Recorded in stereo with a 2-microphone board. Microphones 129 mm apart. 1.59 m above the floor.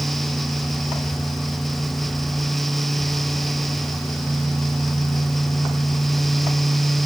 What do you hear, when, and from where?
Only background noise.